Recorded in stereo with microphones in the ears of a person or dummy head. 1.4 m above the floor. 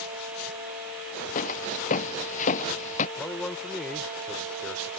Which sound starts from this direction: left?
Footsteps, at 1.4 s.